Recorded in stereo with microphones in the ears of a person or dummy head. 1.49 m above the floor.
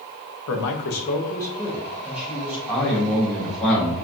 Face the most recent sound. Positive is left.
turn(degrees=5)  # may be behind; listen again after turning